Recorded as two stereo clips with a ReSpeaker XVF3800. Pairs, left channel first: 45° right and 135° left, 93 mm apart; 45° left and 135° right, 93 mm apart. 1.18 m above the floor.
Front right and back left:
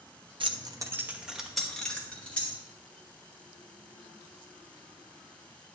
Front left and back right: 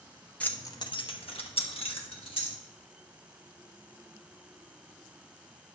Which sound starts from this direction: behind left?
Keys jangling, at 0.4 s.